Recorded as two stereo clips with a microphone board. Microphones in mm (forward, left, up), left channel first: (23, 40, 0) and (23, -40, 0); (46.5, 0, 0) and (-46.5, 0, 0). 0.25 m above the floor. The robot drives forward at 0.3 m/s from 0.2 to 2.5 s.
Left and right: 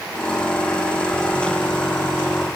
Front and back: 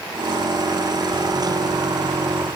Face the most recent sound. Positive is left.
No sound to turn to.